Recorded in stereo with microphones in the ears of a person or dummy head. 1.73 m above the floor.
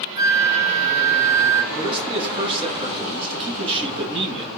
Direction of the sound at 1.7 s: 30° right (ahead or behind).